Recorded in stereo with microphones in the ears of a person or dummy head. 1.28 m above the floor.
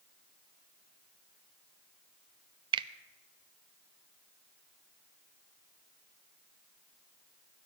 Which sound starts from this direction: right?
A finger snap, at 2.7 s.